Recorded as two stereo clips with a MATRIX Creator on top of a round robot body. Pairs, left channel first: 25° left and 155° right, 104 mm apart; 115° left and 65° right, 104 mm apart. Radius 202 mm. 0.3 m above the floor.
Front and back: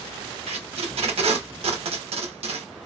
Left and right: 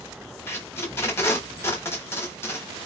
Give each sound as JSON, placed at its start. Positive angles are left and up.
{"t": 0.5, "sound": "tape being pulled", "azimuth_deg": 180, "distance_m": 0.8}